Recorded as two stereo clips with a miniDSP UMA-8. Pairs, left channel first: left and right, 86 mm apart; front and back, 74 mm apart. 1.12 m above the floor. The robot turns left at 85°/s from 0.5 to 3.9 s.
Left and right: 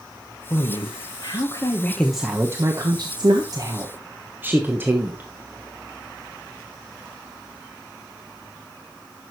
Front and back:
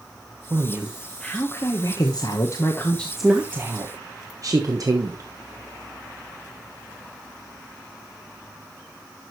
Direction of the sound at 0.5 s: 135° left.